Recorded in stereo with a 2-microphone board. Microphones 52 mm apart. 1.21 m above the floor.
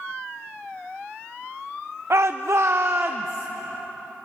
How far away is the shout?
About 0.7 m.